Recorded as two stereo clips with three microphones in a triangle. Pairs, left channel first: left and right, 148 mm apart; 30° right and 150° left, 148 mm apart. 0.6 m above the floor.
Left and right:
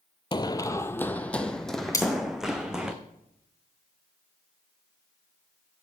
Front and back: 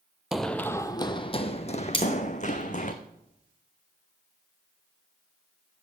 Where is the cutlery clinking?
20° left, 3.5 m.